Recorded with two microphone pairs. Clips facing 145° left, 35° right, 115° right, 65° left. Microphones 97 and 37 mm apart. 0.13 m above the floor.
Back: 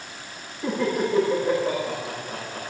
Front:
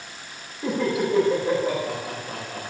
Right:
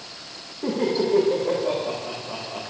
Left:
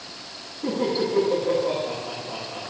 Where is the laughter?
115° right, 8.5 m.